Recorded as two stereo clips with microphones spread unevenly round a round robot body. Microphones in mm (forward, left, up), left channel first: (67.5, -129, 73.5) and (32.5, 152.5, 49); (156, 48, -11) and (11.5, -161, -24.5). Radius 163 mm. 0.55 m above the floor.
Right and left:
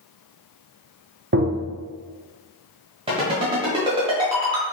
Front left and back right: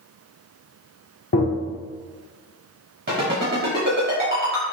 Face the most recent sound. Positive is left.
turn(degrees=170)